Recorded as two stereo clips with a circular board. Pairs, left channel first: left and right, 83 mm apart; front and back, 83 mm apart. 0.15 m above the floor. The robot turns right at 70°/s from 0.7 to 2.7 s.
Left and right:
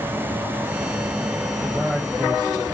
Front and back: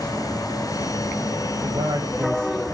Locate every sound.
1.6 s a man speaking: 175° right, 9 m; by 2.6 s 105° right, 9 m